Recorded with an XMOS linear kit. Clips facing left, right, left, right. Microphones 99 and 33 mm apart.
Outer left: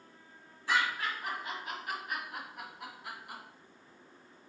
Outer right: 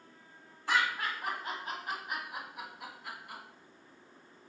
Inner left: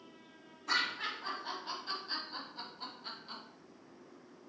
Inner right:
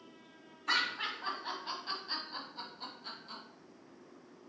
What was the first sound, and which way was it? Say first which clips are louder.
Laughter: even, inner right 1 dB; 55° right (ahead or behind).